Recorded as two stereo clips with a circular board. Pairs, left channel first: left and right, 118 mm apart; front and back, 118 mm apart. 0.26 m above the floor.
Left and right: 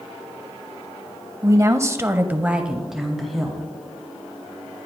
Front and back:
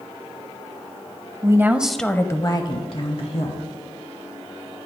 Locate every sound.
1.4 s a woman speaking: 140° right, 1.2 m; by 3.7 s 5° left, 2 m